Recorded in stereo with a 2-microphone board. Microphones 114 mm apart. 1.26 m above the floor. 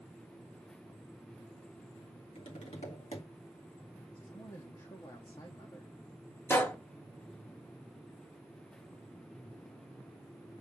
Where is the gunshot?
20° left (ahead or behind), 0.9 m.